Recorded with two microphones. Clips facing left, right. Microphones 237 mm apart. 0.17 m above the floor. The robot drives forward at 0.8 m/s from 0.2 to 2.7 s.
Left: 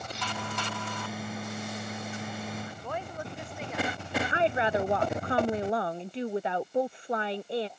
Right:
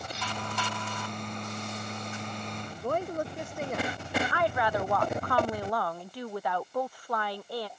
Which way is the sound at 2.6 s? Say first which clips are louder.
Right 6 dB; 45° right (ahead or behind).